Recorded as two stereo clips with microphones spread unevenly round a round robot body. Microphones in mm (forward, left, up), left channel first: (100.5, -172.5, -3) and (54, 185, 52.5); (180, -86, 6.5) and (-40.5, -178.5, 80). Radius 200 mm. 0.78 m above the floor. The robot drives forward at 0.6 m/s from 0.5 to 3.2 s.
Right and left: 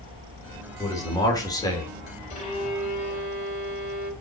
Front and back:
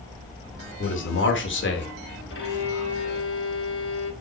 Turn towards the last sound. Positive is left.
turn(degrees=-10)